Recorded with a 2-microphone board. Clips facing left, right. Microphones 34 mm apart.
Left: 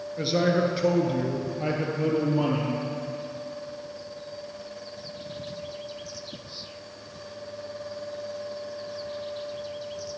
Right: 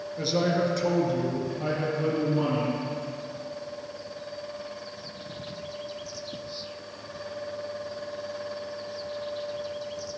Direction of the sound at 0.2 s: 15° left (ahead or behind).